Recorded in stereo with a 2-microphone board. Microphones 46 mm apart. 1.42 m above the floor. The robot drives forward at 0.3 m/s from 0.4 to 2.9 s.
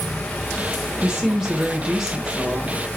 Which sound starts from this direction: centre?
A woman speaking, at 1.0 s.